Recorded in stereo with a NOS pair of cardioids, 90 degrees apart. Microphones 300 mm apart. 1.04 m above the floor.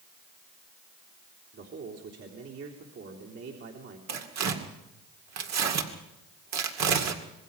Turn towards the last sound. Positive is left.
turn(degrees=-60)